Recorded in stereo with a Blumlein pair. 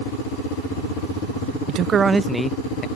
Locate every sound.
1.7 s a man speaking: 35° right; by 2.9 s 25° left